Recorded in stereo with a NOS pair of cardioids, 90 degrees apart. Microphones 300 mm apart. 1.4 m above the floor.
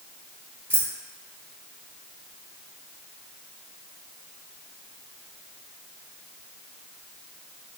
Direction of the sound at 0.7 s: 10° right.